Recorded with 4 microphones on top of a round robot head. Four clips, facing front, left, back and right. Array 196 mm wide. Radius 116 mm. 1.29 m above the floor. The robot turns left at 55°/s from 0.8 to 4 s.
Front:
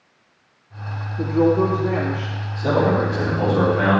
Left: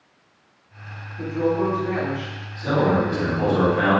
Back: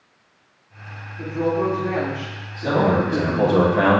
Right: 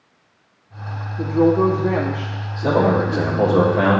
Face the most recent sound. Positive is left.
turn(degrees=-140)